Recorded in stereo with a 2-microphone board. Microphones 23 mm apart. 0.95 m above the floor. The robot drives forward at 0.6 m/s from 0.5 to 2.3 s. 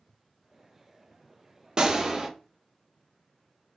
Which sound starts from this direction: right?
A gunshot, at 1.8 s.